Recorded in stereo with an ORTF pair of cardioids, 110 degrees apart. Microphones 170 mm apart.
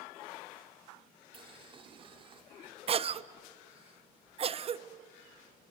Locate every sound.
1.3 s boiling: 35° right, 2 m
2.9 s a cough: 40° right, 0.8 m